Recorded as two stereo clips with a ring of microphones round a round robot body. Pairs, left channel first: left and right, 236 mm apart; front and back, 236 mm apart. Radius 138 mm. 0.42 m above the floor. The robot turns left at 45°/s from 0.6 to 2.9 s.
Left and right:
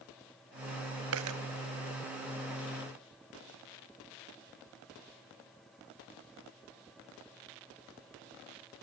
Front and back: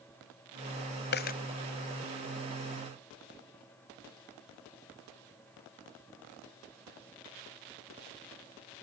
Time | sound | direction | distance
1.1 | a dropped coin | 45° right | 0.7 m